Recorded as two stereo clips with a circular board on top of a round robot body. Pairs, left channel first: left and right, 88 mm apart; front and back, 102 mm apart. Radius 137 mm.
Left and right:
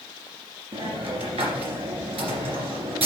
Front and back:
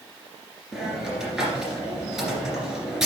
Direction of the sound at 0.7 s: 95° right.